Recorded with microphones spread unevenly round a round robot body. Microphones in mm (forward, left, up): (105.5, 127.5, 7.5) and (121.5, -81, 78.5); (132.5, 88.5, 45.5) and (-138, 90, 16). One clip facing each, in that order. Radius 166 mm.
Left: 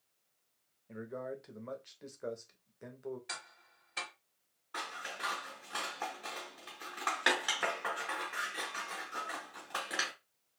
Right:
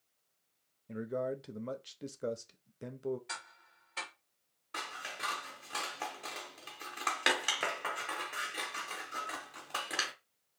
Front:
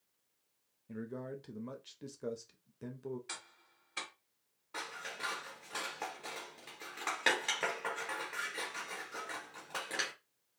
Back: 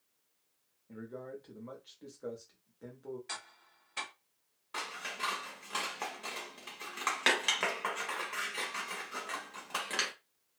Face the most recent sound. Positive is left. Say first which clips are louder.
# left 1 dB, back 1 dB
turn(degrees=-110)